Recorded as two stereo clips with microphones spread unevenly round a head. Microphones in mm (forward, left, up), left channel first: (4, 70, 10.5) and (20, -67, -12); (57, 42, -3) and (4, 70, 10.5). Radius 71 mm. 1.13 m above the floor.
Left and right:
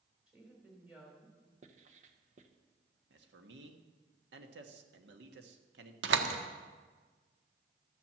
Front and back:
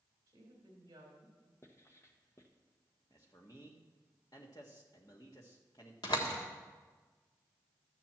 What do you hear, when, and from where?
0.3 s a woman speaking: 170° right, 3 m
1.6 s writing: 65° right, 1.1 m
3.1 s a man speaking: 90° right, 1.4 m
6.0 s a door slam: 80° right, 1.3 m